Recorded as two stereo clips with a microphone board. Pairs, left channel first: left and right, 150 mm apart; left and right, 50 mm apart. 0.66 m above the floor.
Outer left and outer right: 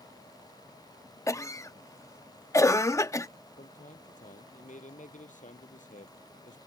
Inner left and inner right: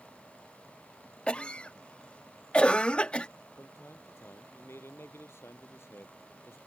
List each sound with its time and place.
1.3 s a cough: 20° left (ahead or behind)
3.6 s a man speaking: 55° left (ahead or behind)